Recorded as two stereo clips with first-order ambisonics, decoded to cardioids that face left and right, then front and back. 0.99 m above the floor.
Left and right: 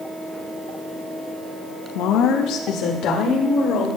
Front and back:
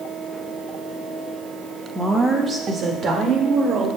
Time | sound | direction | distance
1.9 | a woman speaking | 95° left | 1.2 m